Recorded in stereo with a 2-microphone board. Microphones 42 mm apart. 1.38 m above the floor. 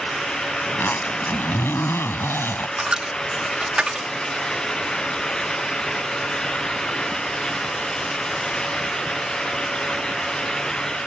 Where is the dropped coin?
25° right (ahead or behind).